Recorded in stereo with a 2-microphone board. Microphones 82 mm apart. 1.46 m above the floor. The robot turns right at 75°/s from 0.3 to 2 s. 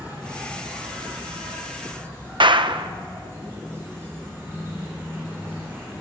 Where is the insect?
155° right, 9.5 m; by 6.0 s 30° right, 9.5 m.